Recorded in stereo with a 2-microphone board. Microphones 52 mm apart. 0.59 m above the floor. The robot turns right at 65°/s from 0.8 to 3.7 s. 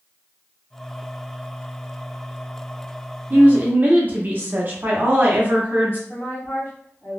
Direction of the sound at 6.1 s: 45° left (ahead or behind).